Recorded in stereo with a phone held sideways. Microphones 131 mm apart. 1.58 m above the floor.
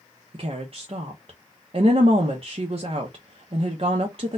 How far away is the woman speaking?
About 0.6 m.